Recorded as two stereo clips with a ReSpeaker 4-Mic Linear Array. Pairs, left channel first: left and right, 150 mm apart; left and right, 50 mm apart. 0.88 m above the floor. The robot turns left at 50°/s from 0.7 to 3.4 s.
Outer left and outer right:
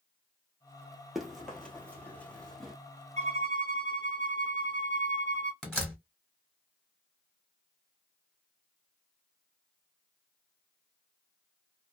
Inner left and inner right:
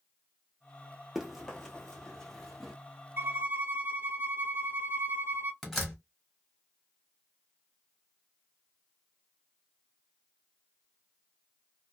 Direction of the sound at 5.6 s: 5° left (ahead or behind).